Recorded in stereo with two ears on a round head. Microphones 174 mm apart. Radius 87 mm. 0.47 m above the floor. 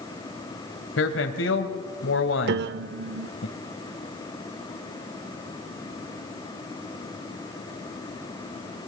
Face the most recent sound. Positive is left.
turn(degrees=-55)  # may be behind; listen again after turning